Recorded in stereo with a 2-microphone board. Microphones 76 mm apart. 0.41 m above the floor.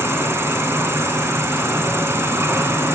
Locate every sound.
0.0 s an insect: 30° right (ahead or behind), 2.0 m